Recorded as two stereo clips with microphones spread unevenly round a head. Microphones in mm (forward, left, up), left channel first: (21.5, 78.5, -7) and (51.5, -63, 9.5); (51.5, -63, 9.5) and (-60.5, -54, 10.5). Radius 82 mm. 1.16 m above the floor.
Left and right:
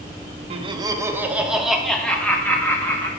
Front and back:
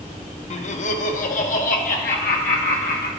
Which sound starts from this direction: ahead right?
Laughter, at 0.5 s.